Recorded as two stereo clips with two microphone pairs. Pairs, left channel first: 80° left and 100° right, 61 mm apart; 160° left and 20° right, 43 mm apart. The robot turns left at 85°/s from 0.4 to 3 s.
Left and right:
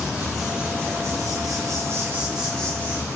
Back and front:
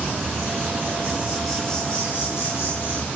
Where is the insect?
10° right, 9 m; by 3.2 s 125° left, 9 m.